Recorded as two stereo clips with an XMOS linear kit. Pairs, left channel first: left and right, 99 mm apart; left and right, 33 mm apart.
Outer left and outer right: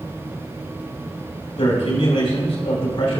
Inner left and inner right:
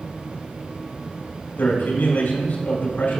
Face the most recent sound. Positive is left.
turn(degrees=80)